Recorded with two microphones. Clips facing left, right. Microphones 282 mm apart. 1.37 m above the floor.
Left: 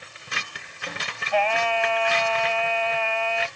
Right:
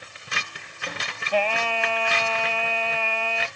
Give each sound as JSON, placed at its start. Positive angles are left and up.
{"t": 1.3, "sound": "singing", "side_deg": -40}